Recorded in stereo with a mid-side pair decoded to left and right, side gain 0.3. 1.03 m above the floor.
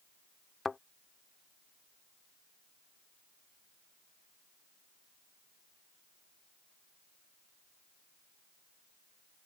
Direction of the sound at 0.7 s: 40° left.